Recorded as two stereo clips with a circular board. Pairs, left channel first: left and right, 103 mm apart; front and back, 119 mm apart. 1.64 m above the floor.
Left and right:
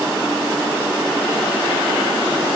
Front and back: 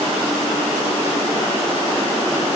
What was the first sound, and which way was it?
Only background noise.